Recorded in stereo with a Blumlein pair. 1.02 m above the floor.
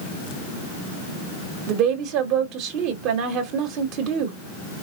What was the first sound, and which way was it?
A woman speaking, 40° right.